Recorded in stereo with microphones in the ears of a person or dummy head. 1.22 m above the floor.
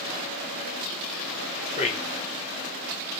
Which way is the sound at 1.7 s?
30° left (ahead or behind).